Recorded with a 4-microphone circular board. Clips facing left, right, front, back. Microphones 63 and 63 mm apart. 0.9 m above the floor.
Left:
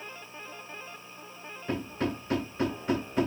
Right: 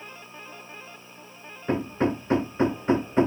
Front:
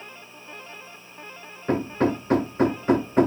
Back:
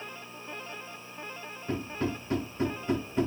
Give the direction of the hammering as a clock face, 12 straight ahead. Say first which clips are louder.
Right 7 dB, front 10 dB; 1 o'clock.